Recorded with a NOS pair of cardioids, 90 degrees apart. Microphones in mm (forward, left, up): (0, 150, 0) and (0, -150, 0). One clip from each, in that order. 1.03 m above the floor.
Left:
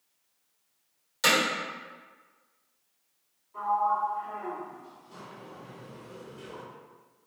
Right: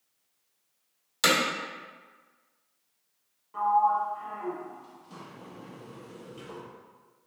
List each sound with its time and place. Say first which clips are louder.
1.2 s hammering: even; 45° right, 1.1 m
3.5 s a sliding door: right 3 dB; 70° right, 1.0 m